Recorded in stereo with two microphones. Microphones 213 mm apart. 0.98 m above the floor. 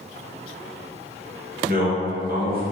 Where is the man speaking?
45° right (ahead or behind), 1.2 m.